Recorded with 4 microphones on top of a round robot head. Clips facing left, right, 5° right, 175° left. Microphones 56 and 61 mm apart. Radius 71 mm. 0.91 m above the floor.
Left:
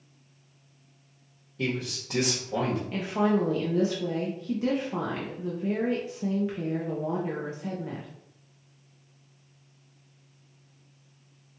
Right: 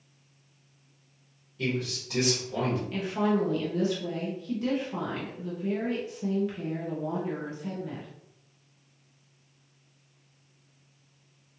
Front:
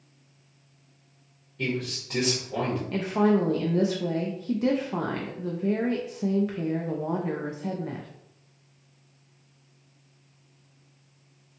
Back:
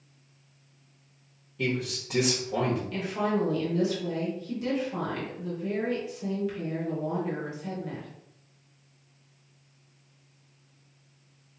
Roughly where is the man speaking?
Left.